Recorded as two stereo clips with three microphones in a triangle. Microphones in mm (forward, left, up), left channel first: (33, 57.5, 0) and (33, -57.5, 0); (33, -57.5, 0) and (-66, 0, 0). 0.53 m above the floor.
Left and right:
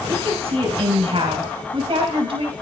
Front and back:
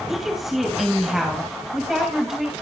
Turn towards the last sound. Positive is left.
turn(degrees=-125)